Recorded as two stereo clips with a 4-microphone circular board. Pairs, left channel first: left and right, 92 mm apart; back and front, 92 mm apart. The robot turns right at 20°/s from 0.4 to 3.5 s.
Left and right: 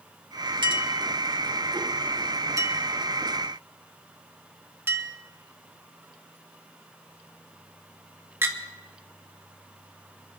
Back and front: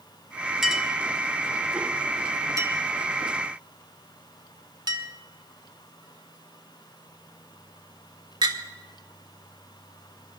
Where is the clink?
85° right, 1.2 m; by 8.6 s 30° right, 1.2 m.